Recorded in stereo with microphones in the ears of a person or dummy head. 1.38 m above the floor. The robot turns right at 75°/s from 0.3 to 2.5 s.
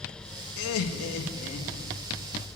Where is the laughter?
70° left, 2 m; by 1.9 s 175° left, 2 m.